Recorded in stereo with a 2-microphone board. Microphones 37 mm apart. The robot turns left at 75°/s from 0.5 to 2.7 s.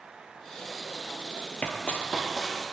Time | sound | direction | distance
1.6 | running footsteps | 40° left (ahead or behind) | 0.5 m